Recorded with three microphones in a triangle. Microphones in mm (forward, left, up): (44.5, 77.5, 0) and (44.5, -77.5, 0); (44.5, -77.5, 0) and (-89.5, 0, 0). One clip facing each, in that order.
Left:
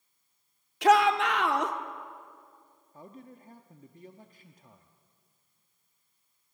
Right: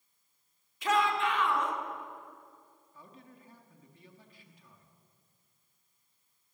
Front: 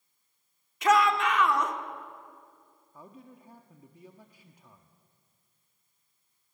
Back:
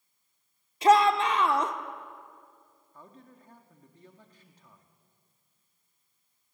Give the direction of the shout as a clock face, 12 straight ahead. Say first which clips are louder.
Left 7 dB, back 3 dB; 9 o'clock.